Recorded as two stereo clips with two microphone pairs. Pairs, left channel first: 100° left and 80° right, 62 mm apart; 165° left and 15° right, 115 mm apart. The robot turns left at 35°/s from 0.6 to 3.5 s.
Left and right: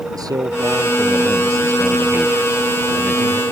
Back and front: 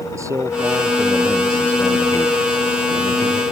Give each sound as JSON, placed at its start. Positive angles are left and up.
{"t": 0.1, "sound": "a man speaking", "azimuth_deg": -80}